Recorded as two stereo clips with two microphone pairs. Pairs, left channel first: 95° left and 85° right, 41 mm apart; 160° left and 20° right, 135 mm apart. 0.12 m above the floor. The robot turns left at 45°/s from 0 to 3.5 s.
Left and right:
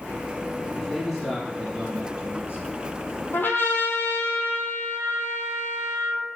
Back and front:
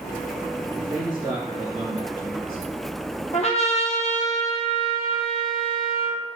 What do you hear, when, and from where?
0.8 s a man speaking: 15° left, 1.9 m; by 3.2 s 95° right, 1.9 m
3.3 s a trumpet: 135° left, 0.8 m; by 6.2 s 125° left, 0.8 m